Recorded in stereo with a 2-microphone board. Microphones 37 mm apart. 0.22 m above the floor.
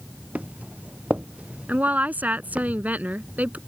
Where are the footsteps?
45° right (ahead or behind); by 2.7 s 40° right (ahead or behind).